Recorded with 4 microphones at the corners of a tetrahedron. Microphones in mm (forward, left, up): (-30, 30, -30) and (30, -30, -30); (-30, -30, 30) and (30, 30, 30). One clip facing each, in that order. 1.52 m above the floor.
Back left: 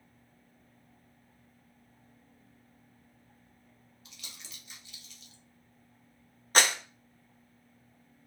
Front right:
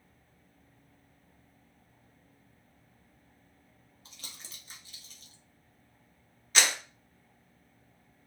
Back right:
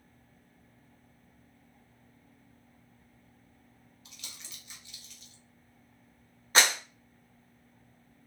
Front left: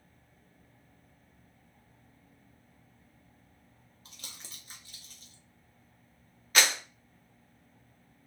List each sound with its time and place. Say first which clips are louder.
4.0 s crumpling: front right 1 dB, front left 1 dB; straight ahead, 0.9 m
6.5 s a clap: back left 3 dB, back right 2 dB; 170° left, 0.8 m